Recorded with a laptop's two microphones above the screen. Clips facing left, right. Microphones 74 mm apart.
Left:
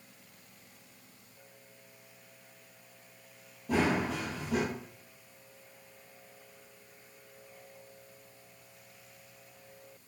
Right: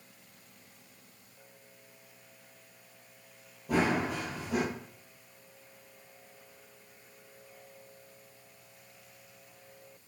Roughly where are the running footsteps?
Centre.